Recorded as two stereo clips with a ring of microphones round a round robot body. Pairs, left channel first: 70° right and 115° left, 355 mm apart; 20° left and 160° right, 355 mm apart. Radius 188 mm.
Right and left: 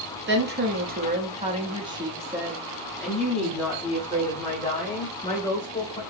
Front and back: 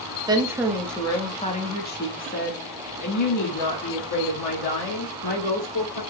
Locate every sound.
0.3 s a woman speaking: 135° left, 1.3 m; by 6.0 s 10° left, 3 m